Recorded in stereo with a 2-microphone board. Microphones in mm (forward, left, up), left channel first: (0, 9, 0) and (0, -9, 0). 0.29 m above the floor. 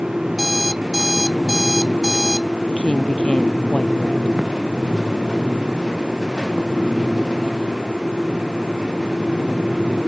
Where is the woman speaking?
75° left (ahead or behind).